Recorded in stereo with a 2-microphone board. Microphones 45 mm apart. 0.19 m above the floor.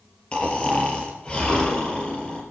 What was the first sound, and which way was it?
Snoring, 20° left (ahead or behind).